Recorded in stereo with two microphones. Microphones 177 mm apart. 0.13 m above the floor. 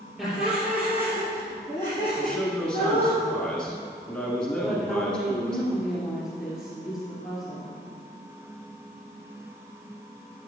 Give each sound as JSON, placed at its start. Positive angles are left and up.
{"t": 0.2, "sound": "laughter", "side_deg": 0, "distance_m": 3.5}
{"t": 2.2, "sound": "a man speaking", "side_deg": 5, "distance_m": 1.3}
{"t": 4.6, "sound": "a woman speaking", "side_deg": -5, "distance_m": 2.5}